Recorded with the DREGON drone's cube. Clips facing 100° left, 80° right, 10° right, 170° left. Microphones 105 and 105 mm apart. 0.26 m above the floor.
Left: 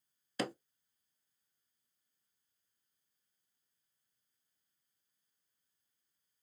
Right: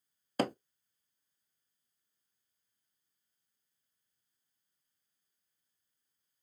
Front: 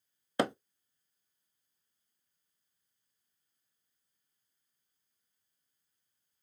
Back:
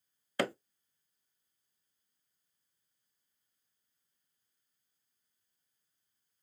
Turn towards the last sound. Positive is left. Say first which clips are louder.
# right 6 dB, front 3 dB
turn(degrees=-75)